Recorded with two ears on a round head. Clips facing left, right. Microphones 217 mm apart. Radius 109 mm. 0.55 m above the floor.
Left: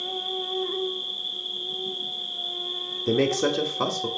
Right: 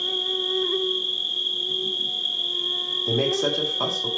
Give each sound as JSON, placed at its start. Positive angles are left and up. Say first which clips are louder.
{"t": 0.0, "sound": "an insect", "louder": "right 3 dB", "side_deg": -30, "distance_m": 0.8}
{"t": 3.1, "sound": "a man speaking", "louder": "left 1 dB", "side_deg": 30, "distance_m": 1.8}